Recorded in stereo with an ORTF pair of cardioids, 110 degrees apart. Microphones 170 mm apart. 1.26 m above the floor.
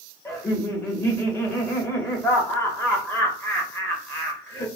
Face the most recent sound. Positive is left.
turn(degrees=10)